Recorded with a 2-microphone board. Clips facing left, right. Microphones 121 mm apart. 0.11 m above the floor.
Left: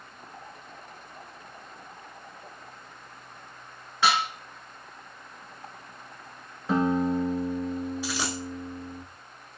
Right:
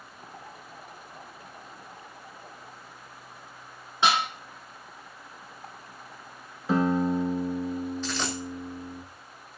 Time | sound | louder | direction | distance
4.0 | dishes clattering | even | 20° right (ahead or behind) | 0.9 m
6.7 | a guitar | even | centre (ahead or behind) | 0.7 m
8.0 | a dropped coin | even | 10° left (ahead or behind) | 0.6 m